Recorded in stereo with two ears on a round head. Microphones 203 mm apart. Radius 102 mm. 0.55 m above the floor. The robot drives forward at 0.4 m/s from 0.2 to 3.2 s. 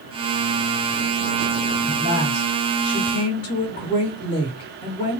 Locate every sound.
1.9 s a woman speaking: 45° left (ahead or behind), 4 m; by 5.2 s 50° left (ahead or behind), 3.5 m